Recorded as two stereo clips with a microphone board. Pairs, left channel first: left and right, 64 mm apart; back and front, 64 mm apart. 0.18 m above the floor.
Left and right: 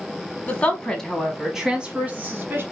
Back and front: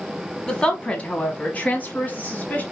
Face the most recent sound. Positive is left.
turn(degrees=-130)